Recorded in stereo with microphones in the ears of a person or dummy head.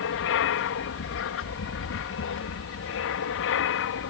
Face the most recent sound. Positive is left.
turn(degrees=60)  # may be behind; listen again after turning